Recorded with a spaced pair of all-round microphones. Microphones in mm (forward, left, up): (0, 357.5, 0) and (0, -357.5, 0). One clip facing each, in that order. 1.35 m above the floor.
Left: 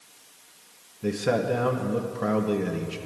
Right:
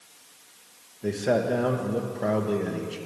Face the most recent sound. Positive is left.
turn(degrees=40)  # may be behind; listen again after turning